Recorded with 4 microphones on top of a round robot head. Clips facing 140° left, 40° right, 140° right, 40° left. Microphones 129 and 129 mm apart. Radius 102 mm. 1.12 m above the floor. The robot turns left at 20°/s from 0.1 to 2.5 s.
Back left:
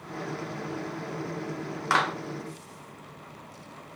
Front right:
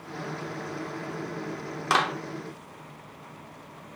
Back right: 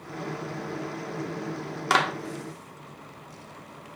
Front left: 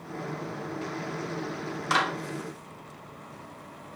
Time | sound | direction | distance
1.9 | a clap | 110° right | 0.8 m